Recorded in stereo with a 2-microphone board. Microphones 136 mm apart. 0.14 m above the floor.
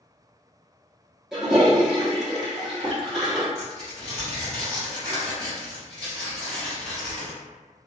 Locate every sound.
1.3 s a toilet flushing: centre (ahead or behind), 1.2 m
3.5 s tearing paper: 5° left (ahead or behind), 1.6 m